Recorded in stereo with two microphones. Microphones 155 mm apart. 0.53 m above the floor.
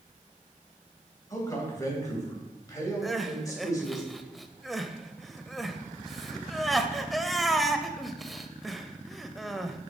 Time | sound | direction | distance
1.3 | a man speaking | 25° left (ahead or behind) | 3 m
3.0 | crying | centre (ahead or behind) | 0.6 m